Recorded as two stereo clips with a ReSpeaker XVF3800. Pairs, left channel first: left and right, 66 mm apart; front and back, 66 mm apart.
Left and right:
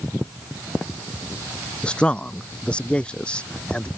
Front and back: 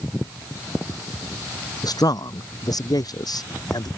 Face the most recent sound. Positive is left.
turn(degrees=15)